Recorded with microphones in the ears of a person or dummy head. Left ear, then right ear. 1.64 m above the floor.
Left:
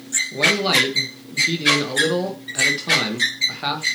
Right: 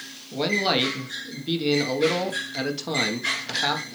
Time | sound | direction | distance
0.3 | a man speaking | 10° right (ahead or behind) | 1.3 m